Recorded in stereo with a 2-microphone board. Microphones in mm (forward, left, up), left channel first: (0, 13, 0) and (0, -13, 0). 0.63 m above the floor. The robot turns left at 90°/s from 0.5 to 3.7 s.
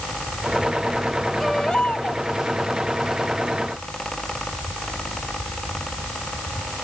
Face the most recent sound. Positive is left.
turn(degrees=-30)